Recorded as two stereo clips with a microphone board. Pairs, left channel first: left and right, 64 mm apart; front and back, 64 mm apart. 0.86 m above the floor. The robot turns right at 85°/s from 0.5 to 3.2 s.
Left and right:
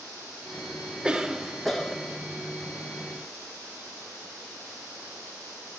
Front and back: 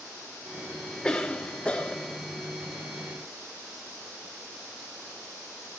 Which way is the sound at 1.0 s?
50° right.